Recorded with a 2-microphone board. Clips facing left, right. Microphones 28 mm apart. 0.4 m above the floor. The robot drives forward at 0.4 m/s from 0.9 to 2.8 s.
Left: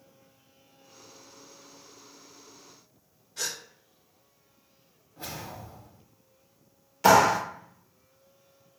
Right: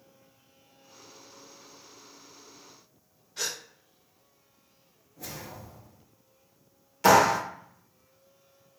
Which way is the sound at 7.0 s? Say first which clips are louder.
Left 1 dB; centre (ahead or behind).